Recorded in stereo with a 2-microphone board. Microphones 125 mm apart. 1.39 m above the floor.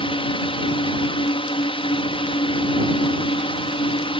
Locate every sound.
0.0 s a drone: 45° left (ahead or behind)